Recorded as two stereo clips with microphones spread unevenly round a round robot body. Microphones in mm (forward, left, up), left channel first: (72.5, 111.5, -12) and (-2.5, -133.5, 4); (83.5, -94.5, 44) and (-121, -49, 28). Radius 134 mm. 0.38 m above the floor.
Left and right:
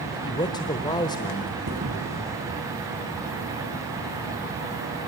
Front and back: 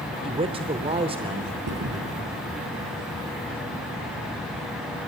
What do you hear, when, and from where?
0.2 s a man speaking: 130° left, 1.0 m
1.7 s a thud: 165° right, 3.5 m